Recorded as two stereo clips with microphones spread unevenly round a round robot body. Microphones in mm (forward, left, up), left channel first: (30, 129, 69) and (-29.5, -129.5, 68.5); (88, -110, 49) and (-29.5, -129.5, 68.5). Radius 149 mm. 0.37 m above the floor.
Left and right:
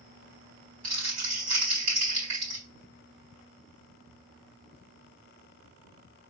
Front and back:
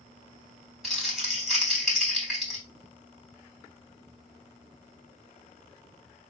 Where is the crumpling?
80° right, 4 m.